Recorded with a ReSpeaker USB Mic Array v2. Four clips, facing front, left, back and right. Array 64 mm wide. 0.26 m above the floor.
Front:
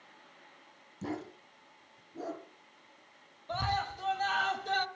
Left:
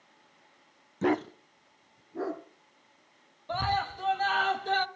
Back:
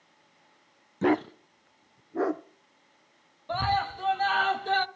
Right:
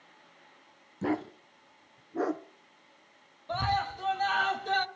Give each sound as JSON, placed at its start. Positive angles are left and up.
{"t": 1.0, "sound": "a dog barking", "azimuth_deg": 155, "distance_m": 0.6}
{"t": 3.5, "sound": "a scream", "azimuth_deg": 165, "distance_m": 1.0}